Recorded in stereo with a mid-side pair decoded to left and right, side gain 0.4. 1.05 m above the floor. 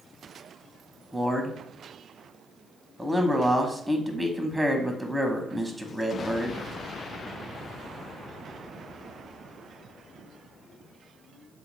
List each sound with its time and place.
1.1 s a man speaking: 5° right, 0.6 m